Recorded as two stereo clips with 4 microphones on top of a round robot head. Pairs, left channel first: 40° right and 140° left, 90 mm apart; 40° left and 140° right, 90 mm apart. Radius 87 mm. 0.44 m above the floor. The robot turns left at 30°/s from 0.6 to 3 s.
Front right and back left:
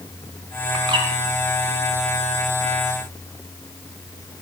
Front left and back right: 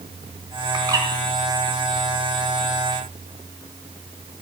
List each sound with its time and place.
0.7 s a bird: 175° left, 3.5 m; by 1.1 s 165° left, 3.5 m